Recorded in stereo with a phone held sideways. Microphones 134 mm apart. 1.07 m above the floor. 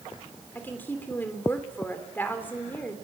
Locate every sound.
0.6 s a woman speaking: 15° left (ahead or behind), 3.5 m